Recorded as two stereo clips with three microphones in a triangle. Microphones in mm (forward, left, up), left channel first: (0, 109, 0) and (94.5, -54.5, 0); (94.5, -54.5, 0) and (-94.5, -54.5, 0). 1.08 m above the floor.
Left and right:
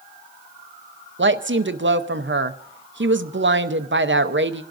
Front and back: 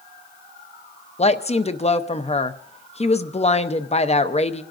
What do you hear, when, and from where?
1.2 s a woman speaking: 60° right, 0.7 m